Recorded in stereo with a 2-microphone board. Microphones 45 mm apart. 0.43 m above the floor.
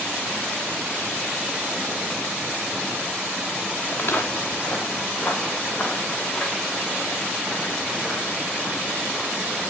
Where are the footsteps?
50° left (ahead or behind), 3.5 m; by 9.7 s 10° left (ahead or behind), 5.5 m.